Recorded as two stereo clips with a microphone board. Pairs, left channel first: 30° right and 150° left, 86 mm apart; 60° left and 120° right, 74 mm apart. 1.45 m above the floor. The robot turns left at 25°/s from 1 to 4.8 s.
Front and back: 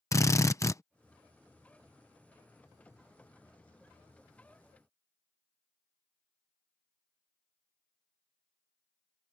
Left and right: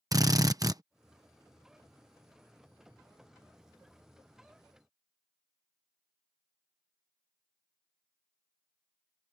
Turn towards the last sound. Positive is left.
turn(degrees=180)